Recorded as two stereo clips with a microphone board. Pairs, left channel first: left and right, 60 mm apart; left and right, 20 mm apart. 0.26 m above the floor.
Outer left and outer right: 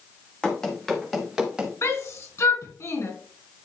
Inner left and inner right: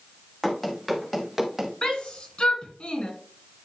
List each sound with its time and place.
0.4 s running footsteps: 15° left (ahead or behind), 3 m; by 1.7 s 10° right (ahead or behind), 2.5 m
1.8 s a shout: 50° left (ahead or behind), 3 m